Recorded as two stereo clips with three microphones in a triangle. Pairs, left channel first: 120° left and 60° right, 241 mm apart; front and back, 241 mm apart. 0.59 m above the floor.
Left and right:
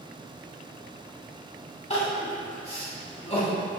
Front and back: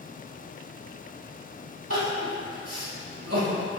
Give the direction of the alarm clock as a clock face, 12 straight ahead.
No alarm clock in this recording.